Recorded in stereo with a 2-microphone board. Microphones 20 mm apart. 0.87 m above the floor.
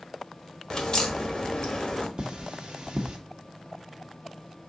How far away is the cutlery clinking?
About 0.9 m.